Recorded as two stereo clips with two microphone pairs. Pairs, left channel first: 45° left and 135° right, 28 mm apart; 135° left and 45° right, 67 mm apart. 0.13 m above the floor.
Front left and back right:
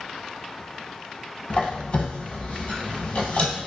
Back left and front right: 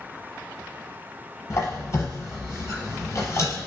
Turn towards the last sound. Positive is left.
turn(degrees=85)